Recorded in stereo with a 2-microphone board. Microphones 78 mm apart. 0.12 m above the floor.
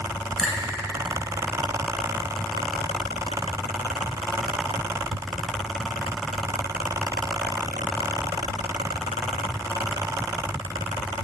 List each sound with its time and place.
0.4 s a finger snap: 20° left (ahead or behind), 1.6 m